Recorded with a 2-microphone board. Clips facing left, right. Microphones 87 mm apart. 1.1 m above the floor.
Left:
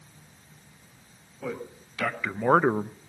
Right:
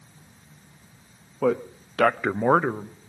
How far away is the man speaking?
About 1.4 m.